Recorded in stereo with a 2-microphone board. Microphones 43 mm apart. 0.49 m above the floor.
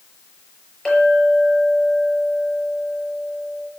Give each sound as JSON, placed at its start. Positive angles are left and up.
{"t": 0.8, "sound": "a clink", "side_deg": 15, "distance_m": 5.5}